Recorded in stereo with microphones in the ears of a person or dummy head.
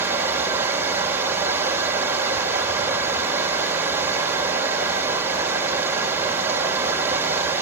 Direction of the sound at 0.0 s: 10° right (ahead or behind).